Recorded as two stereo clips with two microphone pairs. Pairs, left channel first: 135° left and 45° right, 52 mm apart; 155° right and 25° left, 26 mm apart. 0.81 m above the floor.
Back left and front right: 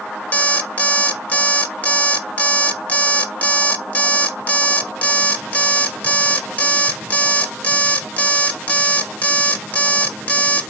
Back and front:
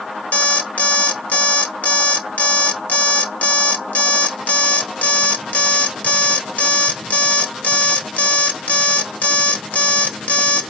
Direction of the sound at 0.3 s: 170° right.